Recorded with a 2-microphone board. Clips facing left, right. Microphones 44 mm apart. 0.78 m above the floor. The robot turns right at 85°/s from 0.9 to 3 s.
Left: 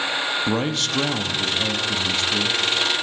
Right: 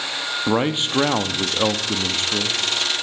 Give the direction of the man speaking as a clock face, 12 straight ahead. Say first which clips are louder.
Right 2 dB; 5 o'clock.